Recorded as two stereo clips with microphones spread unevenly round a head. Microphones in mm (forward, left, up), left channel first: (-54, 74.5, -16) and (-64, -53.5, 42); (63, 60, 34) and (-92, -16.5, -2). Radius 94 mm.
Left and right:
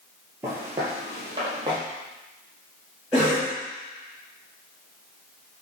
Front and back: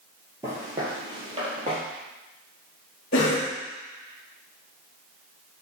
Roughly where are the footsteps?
Right.